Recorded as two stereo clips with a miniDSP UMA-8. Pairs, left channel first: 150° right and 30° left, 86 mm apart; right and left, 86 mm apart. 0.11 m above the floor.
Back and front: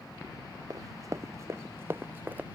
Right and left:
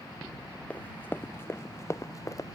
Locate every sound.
0.7 s running footsteps: 20° right; by 2.6 s 40° right